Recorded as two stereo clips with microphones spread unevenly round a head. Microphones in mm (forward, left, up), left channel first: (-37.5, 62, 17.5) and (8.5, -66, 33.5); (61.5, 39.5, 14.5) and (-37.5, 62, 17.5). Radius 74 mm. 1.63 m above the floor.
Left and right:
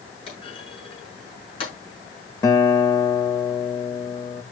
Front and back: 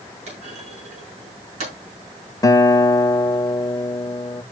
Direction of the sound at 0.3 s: 160° left.